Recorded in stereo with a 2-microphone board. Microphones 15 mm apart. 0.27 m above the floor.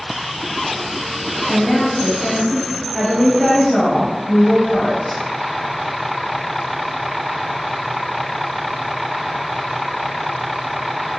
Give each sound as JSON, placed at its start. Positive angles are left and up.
{"t": 1.5, "sound": "a woman speaking", "side_deg": 35, "distance_m": 1.1}